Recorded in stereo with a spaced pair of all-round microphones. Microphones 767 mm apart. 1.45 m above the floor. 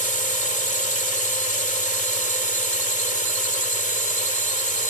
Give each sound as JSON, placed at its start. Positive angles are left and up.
{"t": 0.0, "sound": "a drone", "side_deg": -60}